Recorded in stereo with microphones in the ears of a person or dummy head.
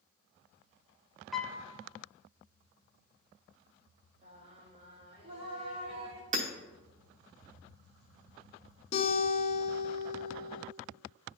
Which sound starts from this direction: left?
A guitar, at 8.9 s.